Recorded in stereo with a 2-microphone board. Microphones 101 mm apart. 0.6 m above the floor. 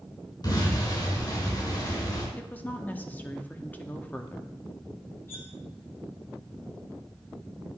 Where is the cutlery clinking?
25° left (ahead or behind), 1.2 m.